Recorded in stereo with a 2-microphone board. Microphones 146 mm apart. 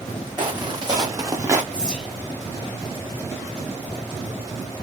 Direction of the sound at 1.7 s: 5° left (ahead or behind).